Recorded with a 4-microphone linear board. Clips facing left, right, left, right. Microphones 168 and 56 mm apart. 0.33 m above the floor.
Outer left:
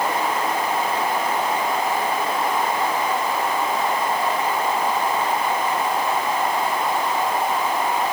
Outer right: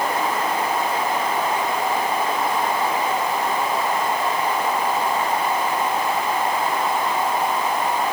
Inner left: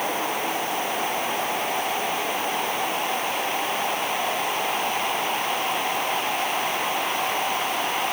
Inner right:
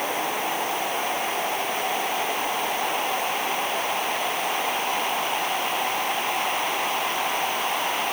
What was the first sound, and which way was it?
Only background noise.